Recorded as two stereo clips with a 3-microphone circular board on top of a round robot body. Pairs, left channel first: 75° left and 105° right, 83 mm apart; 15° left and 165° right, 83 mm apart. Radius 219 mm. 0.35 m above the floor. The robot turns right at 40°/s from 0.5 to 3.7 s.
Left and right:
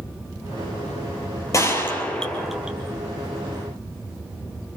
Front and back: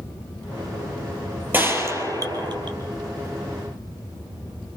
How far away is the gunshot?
About 4 m.